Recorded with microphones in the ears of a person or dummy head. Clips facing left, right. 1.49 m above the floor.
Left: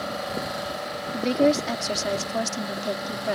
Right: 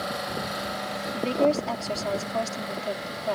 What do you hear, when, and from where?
1.1 s a woman speaking: 20° left (ahead or behind)